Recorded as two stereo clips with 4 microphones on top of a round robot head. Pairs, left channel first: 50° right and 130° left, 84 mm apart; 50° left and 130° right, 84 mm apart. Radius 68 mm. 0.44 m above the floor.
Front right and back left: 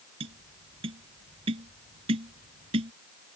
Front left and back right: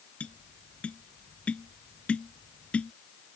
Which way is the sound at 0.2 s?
125° left.